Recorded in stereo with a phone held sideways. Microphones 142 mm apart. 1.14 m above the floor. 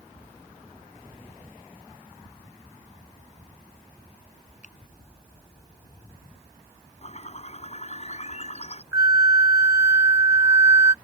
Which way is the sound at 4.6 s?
60° left (ahead or behind).